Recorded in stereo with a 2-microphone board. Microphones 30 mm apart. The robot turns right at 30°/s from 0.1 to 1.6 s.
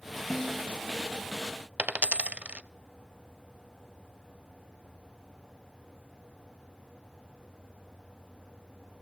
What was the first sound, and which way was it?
A snare drum, 5° right (ahead or behind).